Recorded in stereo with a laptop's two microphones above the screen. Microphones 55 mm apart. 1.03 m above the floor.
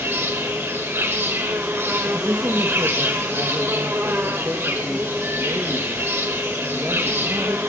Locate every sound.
0.0 s an insect: 50° right (ahead or behind), 1.4 m
2.0 s a man speaking: 55° right (ahead or behind), 1.2 m